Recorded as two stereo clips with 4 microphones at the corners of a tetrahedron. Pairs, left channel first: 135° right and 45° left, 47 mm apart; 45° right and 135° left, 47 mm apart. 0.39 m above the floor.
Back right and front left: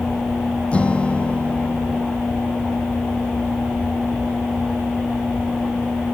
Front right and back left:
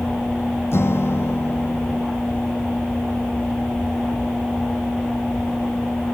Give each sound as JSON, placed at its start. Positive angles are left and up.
{"t": 0.7, "sound": "a guitar", "azimuth_deg": -70}